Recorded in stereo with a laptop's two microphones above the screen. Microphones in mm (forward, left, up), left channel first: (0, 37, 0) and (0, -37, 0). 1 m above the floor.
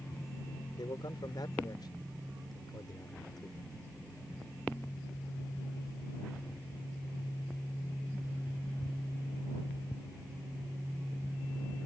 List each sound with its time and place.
0.8 s a man speaking: 70° left (ahead or behind)